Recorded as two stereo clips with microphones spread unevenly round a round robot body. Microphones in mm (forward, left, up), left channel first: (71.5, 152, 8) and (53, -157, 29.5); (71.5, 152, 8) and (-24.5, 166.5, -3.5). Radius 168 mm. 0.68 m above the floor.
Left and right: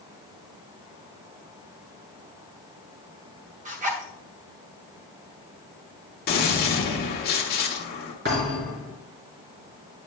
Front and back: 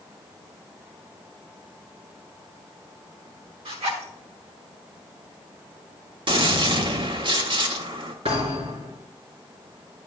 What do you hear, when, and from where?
3.6 s a zipper: 165° right, 1.0 m
6.3 s a gunshot: 145° left, 1.2 m
8.2 s a thud: 155° right, 2.5 m